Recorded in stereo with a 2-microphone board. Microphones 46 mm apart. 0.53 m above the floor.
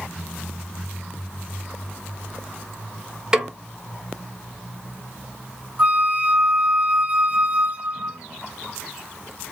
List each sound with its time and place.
3.3 s a snare drum: 15° right (ahead or behind), 1.0 m
5.8 s a flute: 25° right (ahead or behind), 0.8 m